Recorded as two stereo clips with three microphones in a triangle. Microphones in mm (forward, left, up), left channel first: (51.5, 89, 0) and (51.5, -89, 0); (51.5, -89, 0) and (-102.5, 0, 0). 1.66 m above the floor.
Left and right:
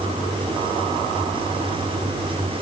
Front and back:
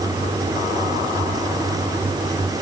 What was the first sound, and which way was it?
Only background noise.